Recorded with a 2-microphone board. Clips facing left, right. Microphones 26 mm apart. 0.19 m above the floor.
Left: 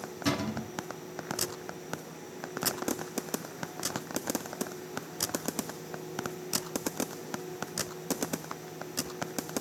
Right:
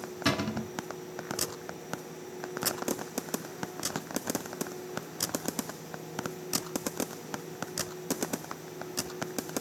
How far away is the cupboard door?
About 1.6 m.